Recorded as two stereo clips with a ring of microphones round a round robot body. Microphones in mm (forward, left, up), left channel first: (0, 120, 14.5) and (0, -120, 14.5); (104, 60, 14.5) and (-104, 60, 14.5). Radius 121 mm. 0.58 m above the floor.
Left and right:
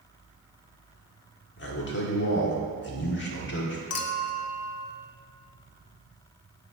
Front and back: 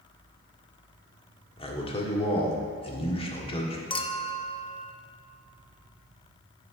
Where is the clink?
65° left, 0.6 m.